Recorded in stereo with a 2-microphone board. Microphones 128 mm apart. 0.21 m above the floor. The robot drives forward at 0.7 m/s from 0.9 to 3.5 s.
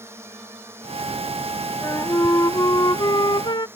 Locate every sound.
0.0 s a drone: 20° right (ahead or behind); by 3.8 s 15° right (ahead or behind)
1.8 s a flute: 20° left (ahead or behind); by 3.7 s 35° left (ahead or behind)